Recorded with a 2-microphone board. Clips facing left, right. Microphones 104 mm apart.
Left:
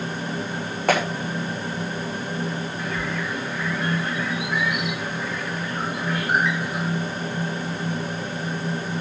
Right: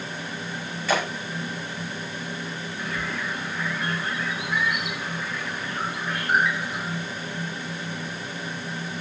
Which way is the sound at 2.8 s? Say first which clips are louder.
Even; centre (ahead or behind).